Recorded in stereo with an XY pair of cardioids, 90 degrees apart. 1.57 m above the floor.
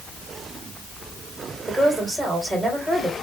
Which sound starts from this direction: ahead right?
A woman speaking, at 1.7 s.